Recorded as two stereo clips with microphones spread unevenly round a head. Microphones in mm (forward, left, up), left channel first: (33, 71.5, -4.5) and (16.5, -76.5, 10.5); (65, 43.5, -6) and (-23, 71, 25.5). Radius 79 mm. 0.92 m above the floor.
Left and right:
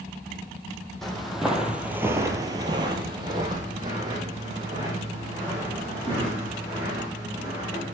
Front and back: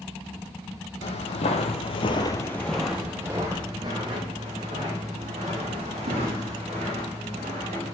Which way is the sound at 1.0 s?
5° right.